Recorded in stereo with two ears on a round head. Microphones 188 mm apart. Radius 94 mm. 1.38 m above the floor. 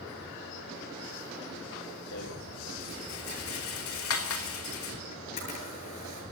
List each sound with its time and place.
2.1 s a rattle: 75° left (ahead or behind), 3 m
5.1 s a camera shutter: 35° left (ahead or behind), 9.5 m